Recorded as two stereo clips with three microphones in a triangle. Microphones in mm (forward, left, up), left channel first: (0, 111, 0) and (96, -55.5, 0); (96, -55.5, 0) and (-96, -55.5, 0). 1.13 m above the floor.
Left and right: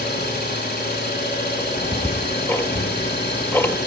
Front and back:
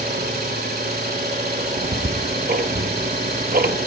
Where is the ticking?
165° right, 1.1 m.